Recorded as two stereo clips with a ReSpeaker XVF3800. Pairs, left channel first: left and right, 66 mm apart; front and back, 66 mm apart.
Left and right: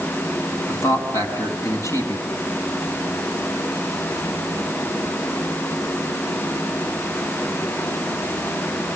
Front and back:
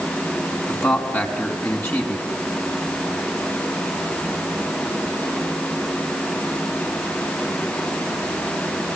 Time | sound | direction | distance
0.7 | a man speaking | 55° left | 4.5 m